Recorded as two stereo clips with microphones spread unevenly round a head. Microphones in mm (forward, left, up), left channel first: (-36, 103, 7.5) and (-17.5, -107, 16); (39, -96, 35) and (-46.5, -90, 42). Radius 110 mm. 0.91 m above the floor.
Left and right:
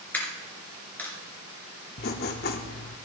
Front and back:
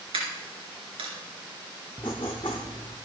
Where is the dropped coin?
175° left, 3.5 m.